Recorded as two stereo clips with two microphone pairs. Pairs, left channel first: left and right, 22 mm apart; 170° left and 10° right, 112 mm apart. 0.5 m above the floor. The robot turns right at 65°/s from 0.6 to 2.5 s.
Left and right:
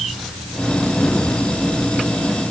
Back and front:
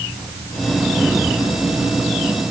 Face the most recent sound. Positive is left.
No sound to turn to.